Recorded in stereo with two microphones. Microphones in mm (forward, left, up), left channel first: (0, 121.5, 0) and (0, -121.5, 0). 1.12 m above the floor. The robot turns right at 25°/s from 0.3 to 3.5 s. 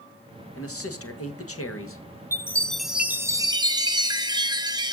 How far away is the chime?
About 0.8 m.